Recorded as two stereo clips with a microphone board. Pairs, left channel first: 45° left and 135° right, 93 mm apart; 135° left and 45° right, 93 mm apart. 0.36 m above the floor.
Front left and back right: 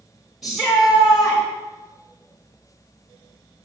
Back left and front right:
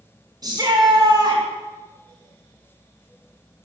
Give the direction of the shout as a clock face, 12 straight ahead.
2 o'clock.